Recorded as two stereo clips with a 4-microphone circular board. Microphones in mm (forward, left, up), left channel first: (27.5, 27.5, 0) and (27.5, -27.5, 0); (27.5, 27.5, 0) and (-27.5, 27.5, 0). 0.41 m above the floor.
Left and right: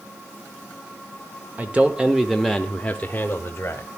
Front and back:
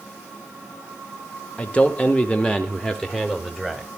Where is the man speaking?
50° right, 1.0 m; by 3.9 s 85° left, 1.2 m.